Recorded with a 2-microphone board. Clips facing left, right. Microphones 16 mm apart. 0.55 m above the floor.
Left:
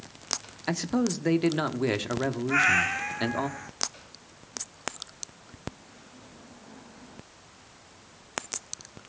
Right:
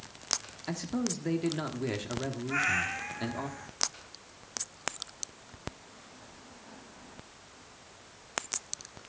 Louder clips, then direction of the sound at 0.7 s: Left 6 dB; 30° left (ahead or behind).